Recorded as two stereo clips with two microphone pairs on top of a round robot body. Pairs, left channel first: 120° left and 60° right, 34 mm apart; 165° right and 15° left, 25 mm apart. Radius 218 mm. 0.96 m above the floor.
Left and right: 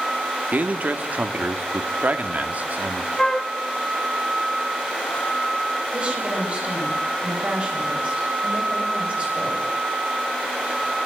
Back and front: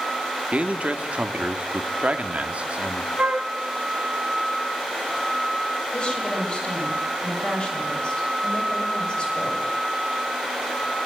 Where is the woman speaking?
110° right, 7.5 m.